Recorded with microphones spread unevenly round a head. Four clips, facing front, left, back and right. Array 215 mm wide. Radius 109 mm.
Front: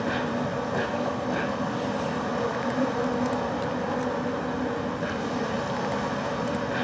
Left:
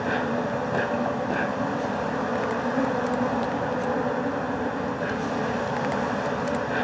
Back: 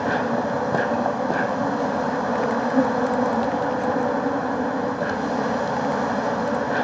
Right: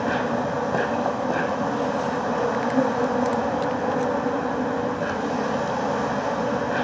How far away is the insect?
About 2 m.